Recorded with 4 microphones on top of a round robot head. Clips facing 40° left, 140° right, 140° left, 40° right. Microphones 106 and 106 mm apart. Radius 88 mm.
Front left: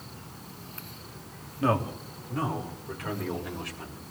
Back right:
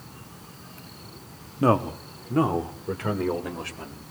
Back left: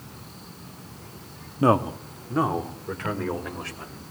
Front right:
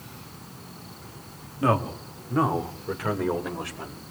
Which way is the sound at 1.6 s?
175° right.